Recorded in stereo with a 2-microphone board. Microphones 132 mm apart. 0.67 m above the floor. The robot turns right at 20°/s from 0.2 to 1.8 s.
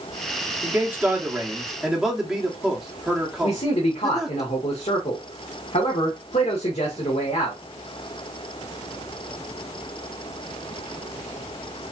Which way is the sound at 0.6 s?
25° right (ahead or behind).